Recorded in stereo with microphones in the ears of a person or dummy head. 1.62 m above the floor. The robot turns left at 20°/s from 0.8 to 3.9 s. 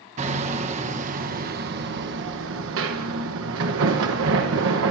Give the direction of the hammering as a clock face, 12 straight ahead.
1 o'clock.